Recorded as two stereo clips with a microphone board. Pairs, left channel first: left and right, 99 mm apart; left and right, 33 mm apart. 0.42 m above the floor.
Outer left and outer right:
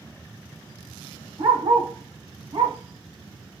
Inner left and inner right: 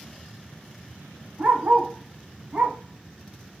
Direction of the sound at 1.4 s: 75° right (ahead or behind).